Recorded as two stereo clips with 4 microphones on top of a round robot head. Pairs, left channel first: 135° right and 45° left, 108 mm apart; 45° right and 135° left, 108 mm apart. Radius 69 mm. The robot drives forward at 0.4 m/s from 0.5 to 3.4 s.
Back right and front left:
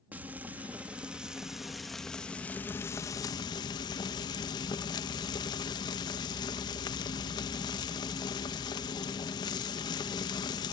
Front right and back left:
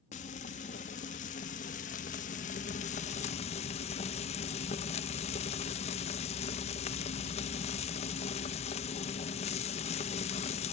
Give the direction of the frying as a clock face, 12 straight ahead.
1 o'clock.